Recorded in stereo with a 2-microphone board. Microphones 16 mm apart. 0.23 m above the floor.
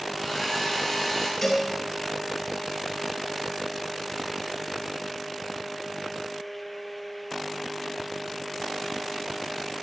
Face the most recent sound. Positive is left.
turn(degrees=15)  # may be behind; listen again after turning